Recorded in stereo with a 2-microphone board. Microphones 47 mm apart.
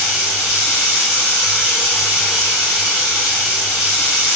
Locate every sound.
0.0 s running water: 10° right (ahead or behind), 1.8 m